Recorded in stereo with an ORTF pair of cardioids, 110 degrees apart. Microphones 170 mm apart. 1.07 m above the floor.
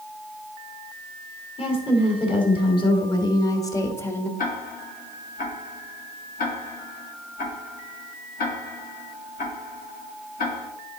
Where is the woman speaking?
35° left, 3 m; by 4.3 s 10° left, 1.3 m.